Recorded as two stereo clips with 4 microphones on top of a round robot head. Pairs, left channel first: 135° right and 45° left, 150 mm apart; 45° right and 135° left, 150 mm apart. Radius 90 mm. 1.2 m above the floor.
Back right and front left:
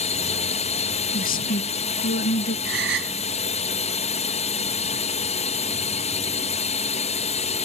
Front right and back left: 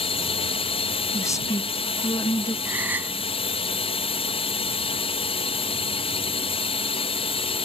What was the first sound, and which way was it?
A drone, 95° right.